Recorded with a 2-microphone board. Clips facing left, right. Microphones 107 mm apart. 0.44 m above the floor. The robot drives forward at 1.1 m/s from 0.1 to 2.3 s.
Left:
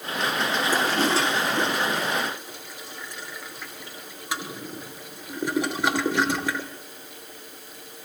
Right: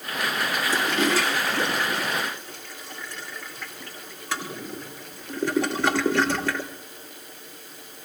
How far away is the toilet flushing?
About 0.7 m.